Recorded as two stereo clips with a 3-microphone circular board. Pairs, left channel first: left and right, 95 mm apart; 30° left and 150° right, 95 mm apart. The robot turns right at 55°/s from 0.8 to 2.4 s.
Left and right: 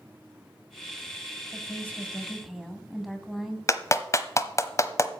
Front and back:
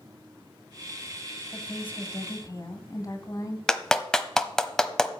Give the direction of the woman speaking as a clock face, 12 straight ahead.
2 o'clock.